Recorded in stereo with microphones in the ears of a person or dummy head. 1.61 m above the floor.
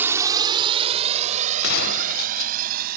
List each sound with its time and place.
0.0 s a drone: 10° right (ahead or behind); by 3.0 s 50° right (ahead or behind)
1.6 s a gunshot: 55° left (ahead or behind)